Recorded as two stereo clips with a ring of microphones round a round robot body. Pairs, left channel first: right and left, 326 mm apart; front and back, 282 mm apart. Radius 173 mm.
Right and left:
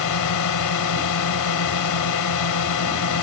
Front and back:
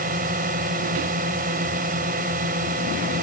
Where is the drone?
115° right.